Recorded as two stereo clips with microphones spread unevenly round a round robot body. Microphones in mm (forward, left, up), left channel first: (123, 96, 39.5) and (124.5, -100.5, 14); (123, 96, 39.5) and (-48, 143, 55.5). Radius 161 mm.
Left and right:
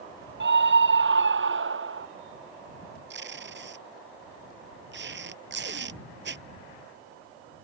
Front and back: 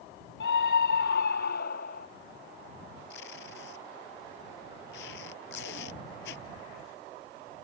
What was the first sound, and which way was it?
A scream, 65° right.